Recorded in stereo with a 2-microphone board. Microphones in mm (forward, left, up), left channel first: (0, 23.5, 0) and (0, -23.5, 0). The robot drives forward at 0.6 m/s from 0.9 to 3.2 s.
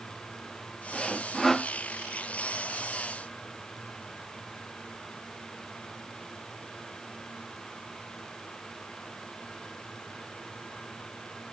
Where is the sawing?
10° left (ahead or behind).